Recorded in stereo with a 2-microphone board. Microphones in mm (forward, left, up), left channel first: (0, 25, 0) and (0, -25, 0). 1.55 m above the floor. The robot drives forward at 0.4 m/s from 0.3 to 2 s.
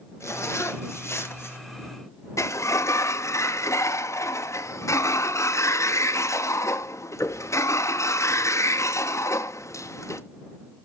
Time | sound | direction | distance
0.2 | a zipper | 70° left (ahead or behind) | 1.5 m
2.4 | a sliding door | 80° left | 0.7 m